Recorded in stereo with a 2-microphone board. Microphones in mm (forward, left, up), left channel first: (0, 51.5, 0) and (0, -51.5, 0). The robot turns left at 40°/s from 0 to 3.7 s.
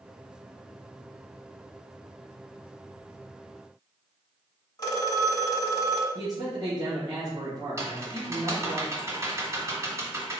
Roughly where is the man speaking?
Right.